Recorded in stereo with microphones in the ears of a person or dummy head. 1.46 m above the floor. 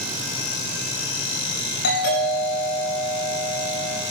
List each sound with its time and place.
1.8 s a doorbell: 65° left (ahead or behind), 9.5 m